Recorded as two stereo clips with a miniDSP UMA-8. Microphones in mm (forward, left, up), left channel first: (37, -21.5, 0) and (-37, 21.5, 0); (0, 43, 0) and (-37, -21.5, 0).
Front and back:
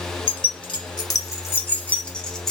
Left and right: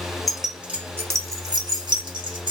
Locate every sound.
0.3 s keys jangling: 30° right, 0.7 m; by 2.5 s 115° right, 1.1 m